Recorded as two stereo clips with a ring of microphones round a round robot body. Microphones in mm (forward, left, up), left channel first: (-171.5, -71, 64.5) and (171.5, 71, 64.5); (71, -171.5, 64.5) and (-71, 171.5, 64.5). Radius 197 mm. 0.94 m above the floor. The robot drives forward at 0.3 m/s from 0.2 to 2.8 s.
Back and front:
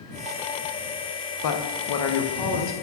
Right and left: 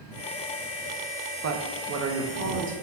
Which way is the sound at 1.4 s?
165° left.